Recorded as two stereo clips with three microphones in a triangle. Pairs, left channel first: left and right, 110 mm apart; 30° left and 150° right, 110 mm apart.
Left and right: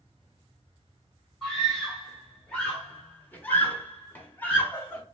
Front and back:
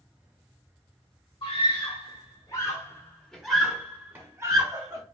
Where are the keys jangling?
No keys jangling in this recording.